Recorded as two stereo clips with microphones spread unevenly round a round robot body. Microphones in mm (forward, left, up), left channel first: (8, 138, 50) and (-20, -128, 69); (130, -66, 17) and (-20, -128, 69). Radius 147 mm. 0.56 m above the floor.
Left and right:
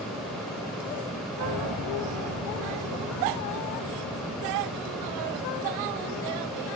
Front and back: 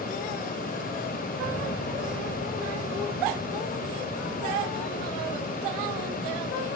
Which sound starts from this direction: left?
A piano, at 1.4 s.